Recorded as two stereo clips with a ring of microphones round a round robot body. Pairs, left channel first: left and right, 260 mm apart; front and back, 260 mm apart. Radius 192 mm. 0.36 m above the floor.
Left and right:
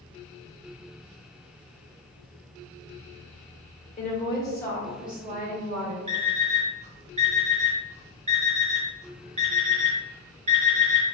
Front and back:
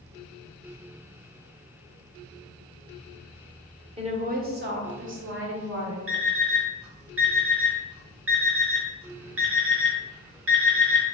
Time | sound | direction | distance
4.0 | a woman speaking | 130° left | 1.1 m
6.1 | an alarm clock | 150° right | 1.1 m